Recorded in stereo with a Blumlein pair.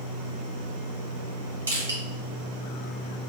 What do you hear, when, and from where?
1.7 s crushing: 70° right, 2 m